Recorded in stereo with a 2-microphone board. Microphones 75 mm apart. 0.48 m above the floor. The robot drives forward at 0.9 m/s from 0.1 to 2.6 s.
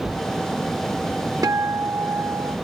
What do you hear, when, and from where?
1.4 s a guitar: 50° right (ahead or behind); by 2.6 s 30° right (ahead or behind)